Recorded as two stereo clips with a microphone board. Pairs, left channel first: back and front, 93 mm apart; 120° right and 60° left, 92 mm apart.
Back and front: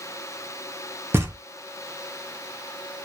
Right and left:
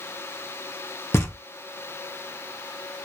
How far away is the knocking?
About 0.7 m.